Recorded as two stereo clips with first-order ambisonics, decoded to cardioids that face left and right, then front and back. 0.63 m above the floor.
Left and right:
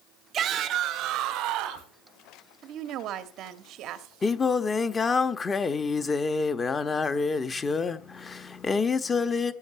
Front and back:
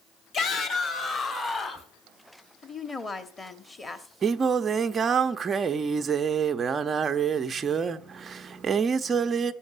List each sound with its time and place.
0.3 s a shout: 40° right, 1.3 m; by 1.9 s 65° right, 2 m
2.6 s a woman speaking: 70° right, 1.1 m
4.2 s singing: 140° left, 0.6 m